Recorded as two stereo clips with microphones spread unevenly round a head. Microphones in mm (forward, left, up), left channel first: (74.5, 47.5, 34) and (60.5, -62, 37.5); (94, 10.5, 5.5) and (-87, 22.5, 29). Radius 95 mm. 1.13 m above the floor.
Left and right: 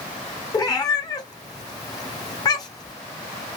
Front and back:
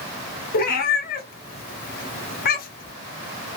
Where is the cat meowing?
35° left, 0.8 m.